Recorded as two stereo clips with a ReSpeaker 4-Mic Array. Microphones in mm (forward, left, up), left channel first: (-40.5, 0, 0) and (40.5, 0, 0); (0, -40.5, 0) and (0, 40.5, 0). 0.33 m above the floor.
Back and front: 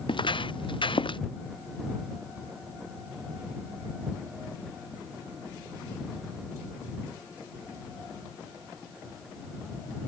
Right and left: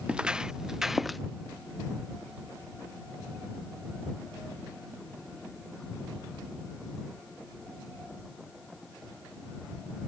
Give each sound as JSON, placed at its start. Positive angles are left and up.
{"t": 0.1, "sound": "footsteps", "azimuth_deg": 170}